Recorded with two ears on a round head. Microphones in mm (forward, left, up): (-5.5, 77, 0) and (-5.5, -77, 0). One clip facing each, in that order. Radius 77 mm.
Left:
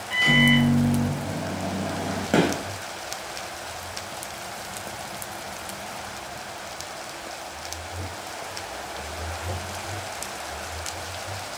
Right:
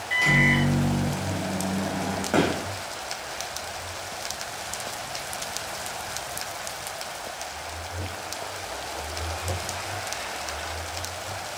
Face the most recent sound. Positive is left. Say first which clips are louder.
# left 2 dB
turn(degrees=25)  # may be behind; listen again after turning